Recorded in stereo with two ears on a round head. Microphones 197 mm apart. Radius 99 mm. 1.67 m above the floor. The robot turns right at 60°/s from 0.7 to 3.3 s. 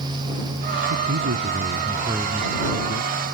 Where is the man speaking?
85° right; by 3.3 s 60° left.